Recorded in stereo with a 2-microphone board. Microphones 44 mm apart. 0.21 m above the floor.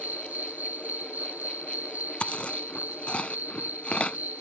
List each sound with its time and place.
0.0 s an insect: 40° right (ahead or behind)
2.2 s chewing: 30° left (ahead or behind)